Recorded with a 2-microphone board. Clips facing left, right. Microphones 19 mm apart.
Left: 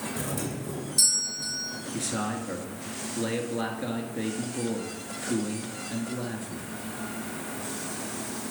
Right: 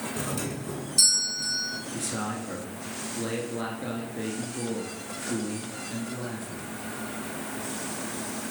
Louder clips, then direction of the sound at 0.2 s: Right 1 dB; 20° right (ahead or behind).